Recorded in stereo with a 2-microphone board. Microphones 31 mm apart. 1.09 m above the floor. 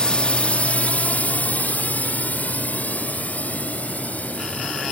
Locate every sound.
0.0 s a drone: 35° left (ahead or behind); by 4.9 s 65° left (ahead or behind)